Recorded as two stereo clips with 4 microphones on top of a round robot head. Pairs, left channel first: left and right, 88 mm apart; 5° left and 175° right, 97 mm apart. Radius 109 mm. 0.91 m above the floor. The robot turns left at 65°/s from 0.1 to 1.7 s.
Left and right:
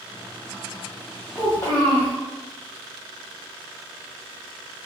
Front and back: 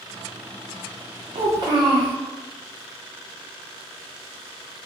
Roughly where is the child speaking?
Behind.